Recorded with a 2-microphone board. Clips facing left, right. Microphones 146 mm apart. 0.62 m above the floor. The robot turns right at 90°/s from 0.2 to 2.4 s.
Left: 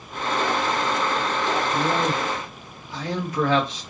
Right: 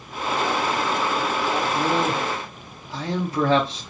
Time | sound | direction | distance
1.7 | a man speaking | 160° right | 1.2 m